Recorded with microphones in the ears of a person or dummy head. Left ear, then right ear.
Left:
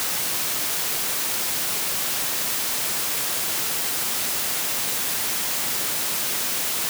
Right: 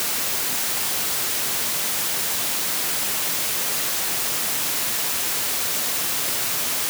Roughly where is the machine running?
No machine running in this recording.